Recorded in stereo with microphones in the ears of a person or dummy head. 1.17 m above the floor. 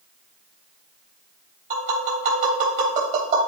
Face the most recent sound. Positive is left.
turn(degrees=-40)  # may be behind; listen again after turning